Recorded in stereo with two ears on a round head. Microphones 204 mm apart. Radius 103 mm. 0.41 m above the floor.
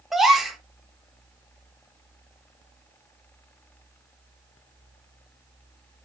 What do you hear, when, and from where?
0.1 s a gasp: centre (ahead or behind), 1.2 m